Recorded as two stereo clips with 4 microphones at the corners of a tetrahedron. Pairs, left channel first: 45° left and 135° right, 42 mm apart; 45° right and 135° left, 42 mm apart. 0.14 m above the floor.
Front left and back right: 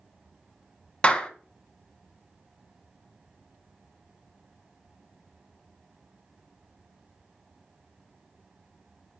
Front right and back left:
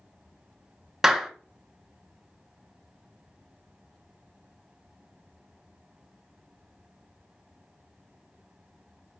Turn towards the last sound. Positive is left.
turn(degrees=70)